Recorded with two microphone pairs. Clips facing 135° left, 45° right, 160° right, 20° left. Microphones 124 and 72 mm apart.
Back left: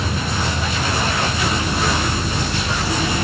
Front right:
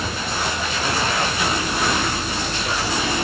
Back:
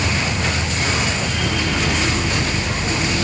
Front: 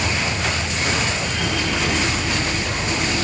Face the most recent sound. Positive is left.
turn(degrees=165)